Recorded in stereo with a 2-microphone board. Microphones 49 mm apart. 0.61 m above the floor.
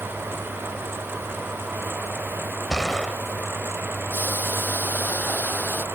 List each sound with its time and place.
2.7 s a gunshot: 15° left (ahead or behind)
4.1 s boiling: 40° left (ahead or behind)